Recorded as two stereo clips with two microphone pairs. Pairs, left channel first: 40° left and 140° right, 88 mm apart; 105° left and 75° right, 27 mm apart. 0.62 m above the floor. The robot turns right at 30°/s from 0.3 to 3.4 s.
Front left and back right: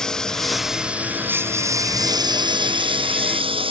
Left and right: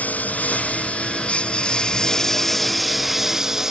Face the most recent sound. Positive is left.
turn(degrees=-145)